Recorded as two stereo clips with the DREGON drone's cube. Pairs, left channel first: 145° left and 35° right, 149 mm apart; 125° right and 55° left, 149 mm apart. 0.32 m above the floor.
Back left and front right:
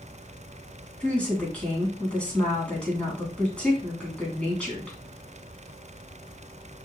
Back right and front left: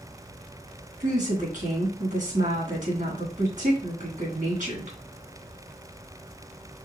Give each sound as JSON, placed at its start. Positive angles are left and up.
{"t": 1.0, "sound": "a woman speaking", "azimuth_deg": 65, "distance_m": 2.5}